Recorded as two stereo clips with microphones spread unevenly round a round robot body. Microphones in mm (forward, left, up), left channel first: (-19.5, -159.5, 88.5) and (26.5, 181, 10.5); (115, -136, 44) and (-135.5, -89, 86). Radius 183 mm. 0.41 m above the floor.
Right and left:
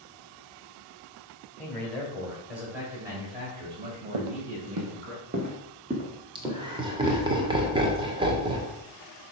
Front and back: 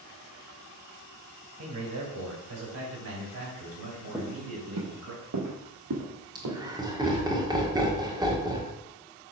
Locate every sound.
1.6 s a man speaking: 170° left, 3 m; by 5.1 s 140° left, 3.5 m
4.1 s footsteps: 85° left, 1.0 m; by 7.2 s 170° left, 4 m
6.3 s laughter: 90° left, 1.5 m